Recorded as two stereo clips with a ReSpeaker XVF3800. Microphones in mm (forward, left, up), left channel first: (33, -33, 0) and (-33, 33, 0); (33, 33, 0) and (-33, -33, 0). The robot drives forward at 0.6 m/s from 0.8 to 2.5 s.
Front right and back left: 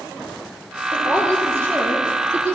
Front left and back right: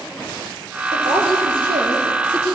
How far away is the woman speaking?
About 9.5 m.